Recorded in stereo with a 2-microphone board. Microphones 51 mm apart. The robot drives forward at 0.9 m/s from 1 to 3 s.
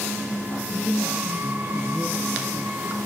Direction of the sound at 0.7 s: 55° right (ahead or behind).